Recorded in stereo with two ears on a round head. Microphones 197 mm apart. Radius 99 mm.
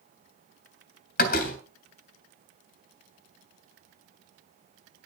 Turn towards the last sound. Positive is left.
turn(degrees=40)  # may be behind; listen again after turning